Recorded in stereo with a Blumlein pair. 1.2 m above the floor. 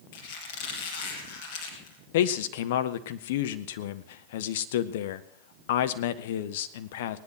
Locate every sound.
0.1 s a squeak: 50° left, 4 m
2.1 s a man speaking: 55° left, 1.0 m